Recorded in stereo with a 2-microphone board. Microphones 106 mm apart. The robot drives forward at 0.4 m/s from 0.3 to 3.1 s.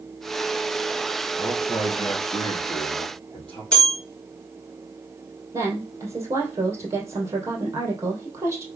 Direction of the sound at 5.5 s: 25° right (ahead or behind).